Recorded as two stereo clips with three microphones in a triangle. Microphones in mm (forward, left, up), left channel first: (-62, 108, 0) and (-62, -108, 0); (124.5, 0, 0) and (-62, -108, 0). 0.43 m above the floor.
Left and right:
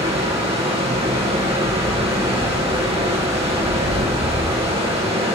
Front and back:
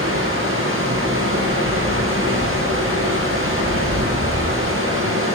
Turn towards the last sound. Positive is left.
turn(degrees=-155)